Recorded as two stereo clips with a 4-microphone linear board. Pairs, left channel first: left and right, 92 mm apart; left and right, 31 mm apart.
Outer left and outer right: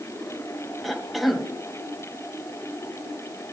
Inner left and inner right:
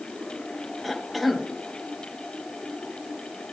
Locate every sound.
0.8 s a cough: centre (ahead or behind), 1.5 m